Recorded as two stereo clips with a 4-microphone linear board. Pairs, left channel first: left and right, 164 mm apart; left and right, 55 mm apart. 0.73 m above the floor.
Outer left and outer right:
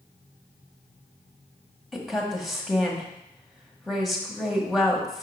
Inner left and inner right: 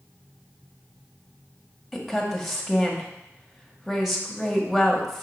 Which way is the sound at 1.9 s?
Centre (ahead or behind).